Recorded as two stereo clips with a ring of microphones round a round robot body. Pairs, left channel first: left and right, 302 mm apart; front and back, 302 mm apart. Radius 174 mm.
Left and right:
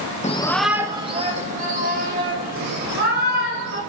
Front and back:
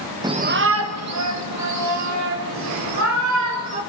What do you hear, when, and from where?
0.2 s a shout: 120° left, 0.6 m; by 3.8 s 150° right, 3.5 m